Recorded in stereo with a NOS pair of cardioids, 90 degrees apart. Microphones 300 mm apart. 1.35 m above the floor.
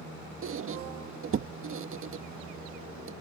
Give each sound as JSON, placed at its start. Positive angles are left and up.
{"t": 0.4, "sound": "a squeak", "azimuth_deg": -50}